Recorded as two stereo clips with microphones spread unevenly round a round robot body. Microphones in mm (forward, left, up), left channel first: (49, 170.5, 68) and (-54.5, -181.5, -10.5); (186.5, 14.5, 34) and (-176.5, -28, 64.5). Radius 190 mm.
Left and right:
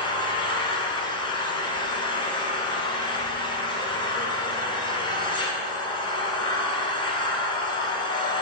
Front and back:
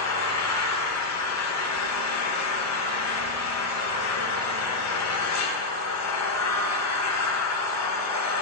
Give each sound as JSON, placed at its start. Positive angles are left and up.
{"t": 0.0, "sound": "an engine running", "azimuth_deg": -10, "distance_m": 1.4}